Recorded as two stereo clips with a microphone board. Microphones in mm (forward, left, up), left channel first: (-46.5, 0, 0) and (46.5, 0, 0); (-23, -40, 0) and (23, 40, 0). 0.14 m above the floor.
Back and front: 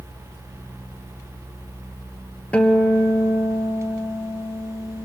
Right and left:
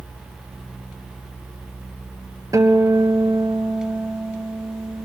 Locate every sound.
2.5 s a guitar: 105° left, 1.4 m